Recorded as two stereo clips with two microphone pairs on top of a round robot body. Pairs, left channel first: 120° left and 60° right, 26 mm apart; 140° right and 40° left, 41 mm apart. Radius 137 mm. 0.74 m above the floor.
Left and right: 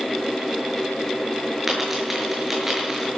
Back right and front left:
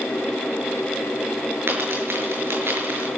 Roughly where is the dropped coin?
Ahead.